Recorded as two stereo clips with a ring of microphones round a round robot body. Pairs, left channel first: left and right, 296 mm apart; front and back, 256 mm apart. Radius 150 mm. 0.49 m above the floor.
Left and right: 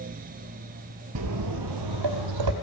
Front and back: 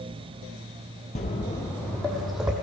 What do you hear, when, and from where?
1.1 s footsteps: 65° right, 0.7 m; by 2.5 s 90° right, 1.2 m